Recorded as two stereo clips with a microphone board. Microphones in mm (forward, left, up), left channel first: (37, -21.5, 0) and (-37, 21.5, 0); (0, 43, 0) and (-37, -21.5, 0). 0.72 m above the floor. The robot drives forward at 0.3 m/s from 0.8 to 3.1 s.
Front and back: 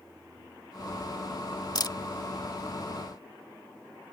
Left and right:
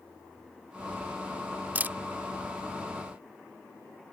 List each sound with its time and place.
1.8 s a camera shutter: 55° right; by 2.0 s 60° right